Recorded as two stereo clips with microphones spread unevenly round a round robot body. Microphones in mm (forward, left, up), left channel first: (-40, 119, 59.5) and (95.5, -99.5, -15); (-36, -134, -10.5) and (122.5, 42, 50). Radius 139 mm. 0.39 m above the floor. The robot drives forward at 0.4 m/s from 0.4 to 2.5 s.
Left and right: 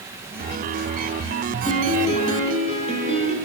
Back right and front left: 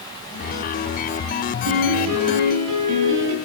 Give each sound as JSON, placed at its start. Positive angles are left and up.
{"t": 1.7, "sound": "a piano", "azimuth_deg": 50, "distance_m": 6.5}